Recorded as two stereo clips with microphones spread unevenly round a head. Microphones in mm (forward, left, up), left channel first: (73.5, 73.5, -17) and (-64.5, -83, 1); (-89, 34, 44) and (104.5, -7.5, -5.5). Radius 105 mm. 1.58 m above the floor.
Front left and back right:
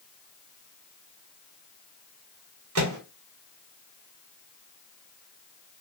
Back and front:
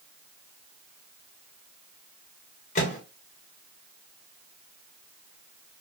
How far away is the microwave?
About 1.1 m.